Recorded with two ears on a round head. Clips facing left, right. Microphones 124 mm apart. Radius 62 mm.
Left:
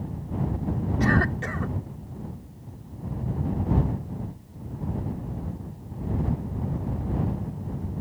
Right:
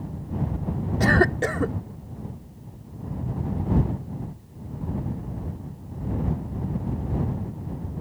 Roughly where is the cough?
Right.